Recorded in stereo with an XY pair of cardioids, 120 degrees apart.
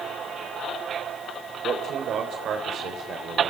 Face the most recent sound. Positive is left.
turn(degrees=-55)